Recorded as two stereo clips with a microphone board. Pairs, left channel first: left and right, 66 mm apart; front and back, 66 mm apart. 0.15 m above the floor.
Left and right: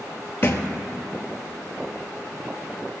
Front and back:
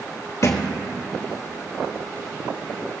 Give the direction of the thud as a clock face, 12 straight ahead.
11 o'clock.